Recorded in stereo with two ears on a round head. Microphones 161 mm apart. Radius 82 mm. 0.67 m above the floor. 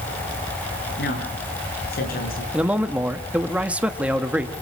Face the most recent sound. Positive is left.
turn(degrees=-5)  # may be behind; listen again after turning